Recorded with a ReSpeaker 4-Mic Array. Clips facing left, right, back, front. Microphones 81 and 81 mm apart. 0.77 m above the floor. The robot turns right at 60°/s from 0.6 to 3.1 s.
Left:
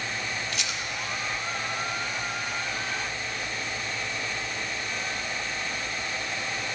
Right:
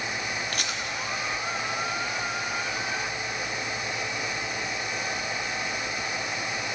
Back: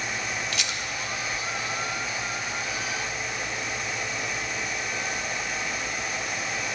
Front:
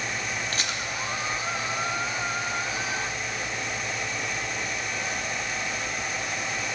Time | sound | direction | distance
0.5 | a rattle | 50° right | 0.6 m